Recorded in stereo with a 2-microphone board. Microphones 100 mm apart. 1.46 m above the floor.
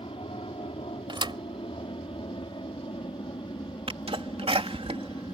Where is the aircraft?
65° left (ahead or behind); by 5.4 s 40° left (ahead or behind).